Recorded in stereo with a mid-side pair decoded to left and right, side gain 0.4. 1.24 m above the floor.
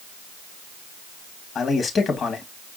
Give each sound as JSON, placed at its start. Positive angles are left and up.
{"t": 1.6, "sound": "a man speaking", "azimuth_deg": 60, "distance_m": 2.0}